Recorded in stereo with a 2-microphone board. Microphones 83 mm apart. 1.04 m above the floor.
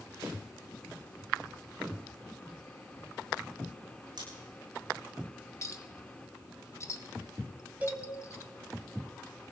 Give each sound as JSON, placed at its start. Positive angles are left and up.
{"t": 4.2, "sound": "scissors", "side_deg": -55, "distance_m": 10.0}
{"t": 5.6, "sound": "a clink", "side_deg": 35, "distance_m": 0.9}
{"t": 7.8, "sound": "a cowbell", "side_deg": -20, "distance_m": 4.0}